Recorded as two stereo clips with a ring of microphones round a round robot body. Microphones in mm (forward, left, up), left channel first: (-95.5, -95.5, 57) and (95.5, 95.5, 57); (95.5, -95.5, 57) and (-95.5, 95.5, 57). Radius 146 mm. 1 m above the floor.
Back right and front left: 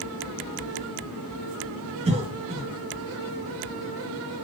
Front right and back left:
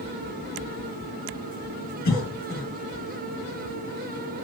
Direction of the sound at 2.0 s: 25° right.